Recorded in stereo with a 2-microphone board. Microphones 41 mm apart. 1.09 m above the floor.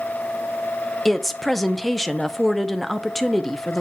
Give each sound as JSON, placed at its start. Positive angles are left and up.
{"t": 1.1, "sound": "a woman speaking", "side_deg": 5, "distance_m": 0.6}